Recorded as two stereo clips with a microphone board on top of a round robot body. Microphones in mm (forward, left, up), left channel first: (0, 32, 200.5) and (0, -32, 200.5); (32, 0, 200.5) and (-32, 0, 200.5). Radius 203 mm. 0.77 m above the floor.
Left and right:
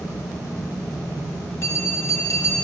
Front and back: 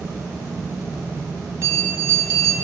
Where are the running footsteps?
No running footsteps in this recording.